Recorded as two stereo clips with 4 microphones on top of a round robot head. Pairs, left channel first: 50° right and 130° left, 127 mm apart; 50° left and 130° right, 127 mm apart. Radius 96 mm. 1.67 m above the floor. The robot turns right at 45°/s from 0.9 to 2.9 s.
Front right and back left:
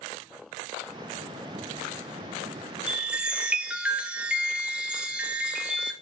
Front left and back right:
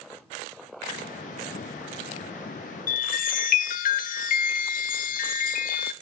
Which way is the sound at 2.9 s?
45° left.